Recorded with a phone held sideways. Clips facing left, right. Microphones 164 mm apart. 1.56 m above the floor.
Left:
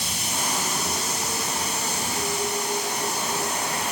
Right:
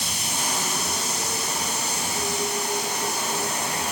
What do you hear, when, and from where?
Only background noise.